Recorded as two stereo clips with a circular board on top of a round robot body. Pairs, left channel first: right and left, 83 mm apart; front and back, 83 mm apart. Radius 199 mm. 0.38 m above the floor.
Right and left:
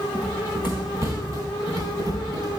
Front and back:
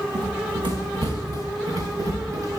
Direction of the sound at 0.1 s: 165° left.